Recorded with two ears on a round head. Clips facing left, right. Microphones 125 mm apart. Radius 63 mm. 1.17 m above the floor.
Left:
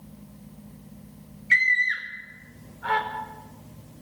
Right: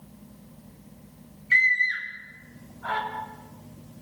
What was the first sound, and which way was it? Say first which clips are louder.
A scream: even; 75° left (ahead or behind).